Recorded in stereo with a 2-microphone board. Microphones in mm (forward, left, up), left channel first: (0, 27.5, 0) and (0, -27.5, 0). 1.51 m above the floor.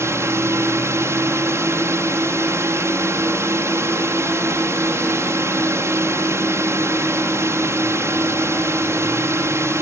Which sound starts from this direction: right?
A drone, at 0.0 s.